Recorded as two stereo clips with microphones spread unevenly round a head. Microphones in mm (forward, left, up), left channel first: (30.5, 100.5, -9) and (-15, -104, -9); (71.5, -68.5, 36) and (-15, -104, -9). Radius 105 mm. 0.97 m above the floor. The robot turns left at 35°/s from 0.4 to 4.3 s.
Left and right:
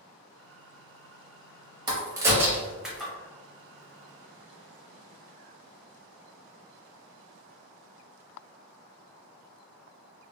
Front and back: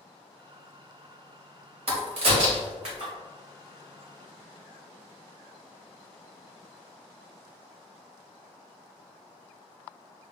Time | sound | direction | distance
1.9 | a crack | 155° right | 0.8 m